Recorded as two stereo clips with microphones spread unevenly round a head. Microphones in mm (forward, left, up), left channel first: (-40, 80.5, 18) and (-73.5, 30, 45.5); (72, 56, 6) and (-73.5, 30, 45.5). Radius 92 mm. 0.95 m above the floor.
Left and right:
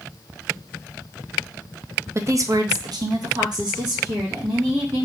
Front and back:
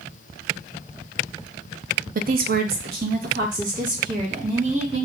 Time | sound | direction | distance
2.1 | a woman speaking | 175° left | 0.6 m